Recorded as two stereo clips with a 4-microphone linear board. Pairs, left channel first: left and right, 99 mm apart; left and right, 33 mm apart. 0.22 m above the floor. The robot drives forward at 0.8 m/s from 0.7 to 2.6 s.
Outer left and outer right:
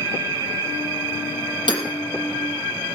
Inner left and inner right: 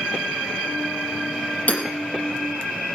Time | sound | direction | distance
1.7 | hammering | 50° left (ahead or behind) | 5.5 m